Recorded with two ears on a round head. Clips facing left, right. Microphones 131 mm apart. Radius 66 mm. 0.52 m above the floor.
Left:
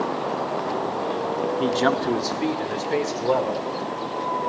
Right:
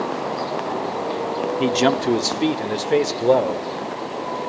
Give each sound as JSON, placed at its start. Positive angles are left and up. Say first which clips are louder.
{"t": 1.6, "sound": "a man speaking", "louder": "right 4 dB", "side_deg": -15, "distance_m": 0.8}